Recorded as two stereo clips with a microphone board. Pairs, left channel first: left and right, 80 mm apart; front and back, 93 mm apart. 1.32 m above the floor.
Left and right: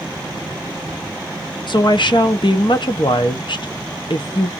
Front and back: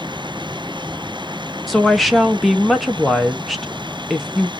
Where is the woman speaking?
90° left, 0.8 m.